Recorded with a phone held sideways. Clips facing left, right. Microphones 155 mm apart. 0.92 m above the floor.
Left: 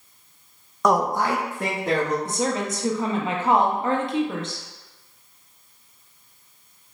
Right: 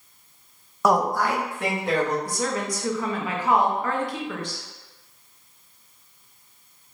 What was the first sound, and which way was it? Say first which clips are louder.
A man speaking: even; 5° right (ahead or behind).